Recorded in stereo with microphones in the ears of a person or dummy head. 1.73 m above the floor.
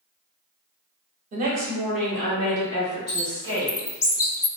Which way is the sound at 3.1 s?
20° left (ahead or behind).